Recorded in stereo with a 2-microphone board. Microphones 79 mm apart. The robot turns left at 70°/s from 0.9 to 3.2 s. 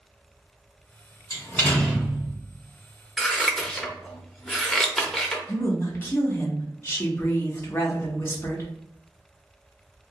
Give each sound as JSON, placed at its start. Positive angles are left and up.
{"t": 1.3, "sound": "a door slam", "azimuth_deg": 45, "distance_m": 1.8}
{"t": 3.2, "sound": "scissors", "side_deg": 5, "distance_m": 0.6}
{"t": 5.5, "sound": "a woman speaking", "side_deg": 30, "distance_m": 1.0}